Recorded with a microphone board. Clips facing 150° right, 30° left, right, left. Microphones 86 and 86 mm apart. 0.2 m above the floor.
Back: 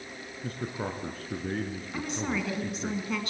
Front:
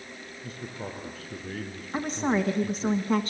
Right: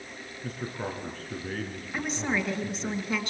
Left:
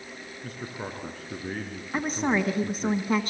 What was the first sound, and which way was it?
A man speaking, straight behind.